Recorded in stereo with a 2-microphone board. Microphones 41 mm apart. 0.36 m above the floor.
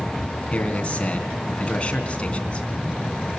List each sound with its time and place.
0.5 s a man speaking: 30° left (ahead or behind), 3 m